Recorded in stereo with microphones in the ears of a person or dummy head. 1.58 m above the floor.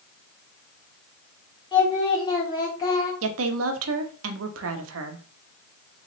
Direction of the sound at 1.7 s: 20° left (ahead or behind).